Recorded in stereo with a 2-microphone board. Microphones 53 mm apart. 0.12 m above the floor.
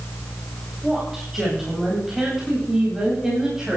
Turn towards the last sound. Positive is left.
turn(degrees=-10)  # may be behind; listen again after turning